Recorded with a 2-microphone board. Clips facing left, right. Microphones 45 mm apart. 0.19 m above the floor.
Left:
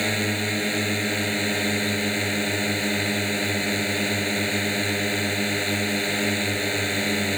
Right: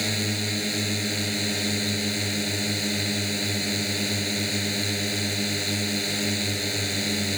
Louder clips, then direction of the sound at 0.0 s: Left 4 dB; 25° left (ahead or behind).